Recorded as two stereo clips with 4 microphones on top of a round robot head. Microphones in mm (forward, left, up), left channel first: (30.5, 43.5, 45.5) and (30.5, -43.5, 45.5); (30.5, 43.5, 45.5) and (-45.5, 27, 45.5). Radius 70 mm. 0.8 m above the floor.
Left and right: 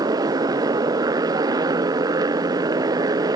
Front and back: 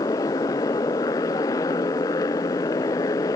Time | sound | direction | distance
0.0 | a motorcycle | 45° right | ?